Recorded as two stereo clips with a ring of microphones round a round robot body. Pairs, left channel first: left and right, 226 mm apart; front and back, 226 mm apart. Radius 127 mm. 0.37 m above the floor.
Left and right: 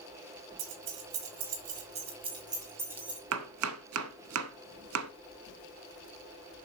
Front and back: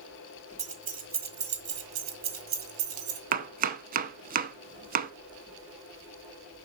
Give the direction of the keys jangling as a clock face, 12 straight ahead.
4 o'clock.